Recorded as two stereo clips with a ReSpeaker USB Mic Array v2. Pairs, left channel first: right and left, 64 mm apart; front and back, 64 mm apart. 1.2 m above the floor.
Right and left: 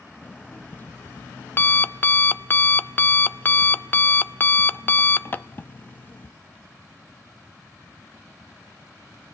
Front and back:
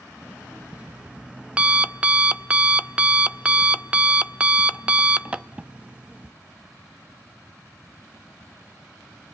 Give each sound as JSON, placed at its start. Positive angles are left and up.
{"t": 0.2, "sound": "an alarm clock", "azimuth_deg": -120, "distance_m": 0.6}